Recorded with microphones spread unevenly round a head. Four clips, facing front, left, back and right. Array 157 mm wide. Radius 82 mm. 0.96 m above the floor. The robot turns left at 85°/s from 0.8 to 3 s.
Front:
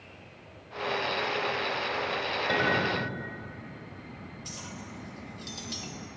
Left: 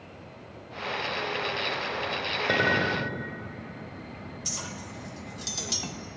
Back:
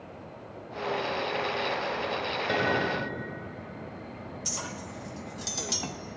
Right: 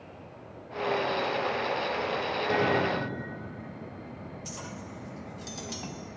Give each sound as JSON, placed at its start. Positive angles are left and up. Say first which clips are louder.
{"t": 2.5, "sound": "a clink", "louder": "left 1 dB, even", "azimuth_deg": 90, "distance_m": 2.5}
{"t": 4.5, "sound": "a clink", "louder": "left 2 dB, back 5 dB", "azimuth_deg": 150, "distance_m": 0.6}